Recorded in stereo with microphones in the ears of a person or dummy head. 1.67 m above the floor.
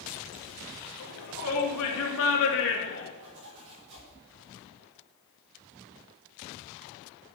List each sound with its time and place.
1.0 s a shout: 85° left, 3 m; by 3.1 s 65° left (ahead or behind), 2.5 m
3.2 s a zipper: 55° right (ahead or behind), 5.5 m